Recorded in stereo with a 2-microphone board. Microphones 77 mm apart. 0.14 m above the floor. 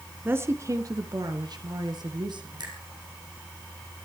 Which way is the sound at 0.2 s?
25° right (ahead or behind).